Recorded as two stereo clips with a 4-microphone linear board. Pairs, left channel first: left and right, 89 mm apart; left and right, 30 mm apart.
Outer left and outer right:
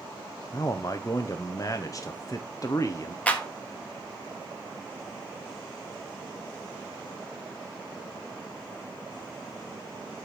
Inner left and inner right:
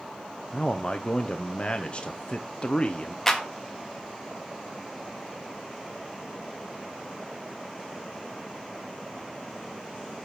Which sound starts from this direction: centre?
A clap, at 3.3 s.